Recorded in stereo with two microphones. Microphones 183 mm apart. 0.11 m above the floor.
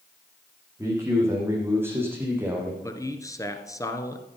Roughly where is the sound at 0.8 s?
Centre.